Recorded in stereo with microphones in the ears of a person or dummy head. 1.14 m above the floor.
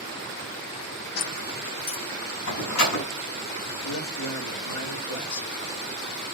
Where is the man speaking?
75° left (ahead or behind), 3.5 m.